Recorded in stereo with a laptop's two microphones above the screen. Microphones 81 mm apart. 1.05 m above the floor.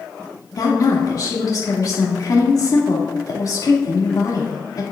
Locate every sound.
0.6 s a woman speaking: 50° left (ahead or behind), 2.5 m